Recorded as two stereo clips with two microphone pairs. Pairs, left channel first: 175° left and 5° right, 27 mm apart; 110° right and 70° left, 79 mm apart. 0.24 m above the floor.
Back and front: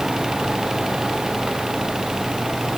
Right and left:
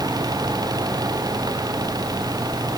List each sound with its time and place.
Only background noise.